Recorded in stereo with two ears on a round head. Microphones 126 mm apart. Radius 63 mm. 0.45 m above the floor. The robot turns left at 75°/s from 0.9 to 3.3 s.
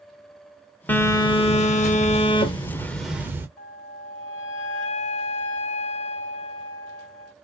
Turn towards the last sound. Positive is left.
turn(degrees=55)  # may be behind; listen again after turning